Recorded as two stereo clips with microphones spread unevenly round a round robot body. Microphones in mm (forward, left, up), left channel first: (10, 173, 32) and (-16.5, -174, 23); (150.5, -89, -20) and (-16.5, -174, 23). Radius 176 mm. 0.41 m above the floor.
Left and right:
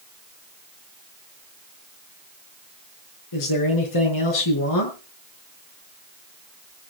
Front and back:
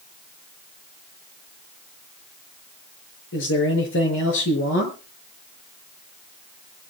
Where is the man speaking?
50° left, 6.5 m.